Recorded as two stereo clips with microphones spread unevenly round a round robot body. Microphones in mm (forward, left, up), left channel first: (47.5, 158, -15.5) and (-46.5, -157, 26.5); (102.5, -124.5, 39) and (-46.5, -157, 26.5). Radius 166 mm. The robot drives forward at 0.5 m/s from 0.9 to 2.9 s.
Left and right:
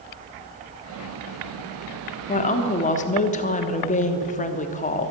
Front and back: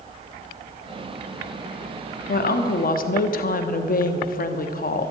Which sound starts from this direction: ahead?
A woman speaking, at 2.3 s.